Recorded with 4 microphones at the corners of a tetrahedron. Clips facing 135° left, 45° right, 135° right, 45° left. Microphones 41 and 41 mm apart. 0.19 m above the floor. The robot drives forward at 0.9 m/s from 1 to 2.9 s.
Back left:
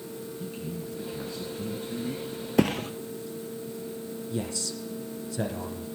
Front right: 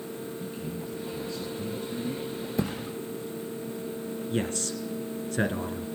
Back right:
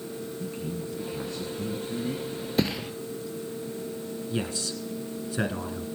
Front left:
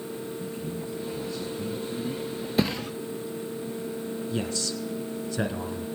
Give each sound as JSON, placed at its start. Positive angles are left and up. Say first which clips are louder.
{"t": 0.4, "sound": "a man speaking", "louder": "front right 1 dB, even", "azimuth_deg": -155, "distance_m": 1.6}
{"t": 2.6, "sound": "a thud", "louder": "back left 8 dB, front left 1 dB", "azimuth_deg": 130, "distance_m": 0.6}
{"t": 4.3, "sound": "a man speaking", "louder": "front right 3 dB, even", "azimuth_deg": -70, "distance_m": 2.0}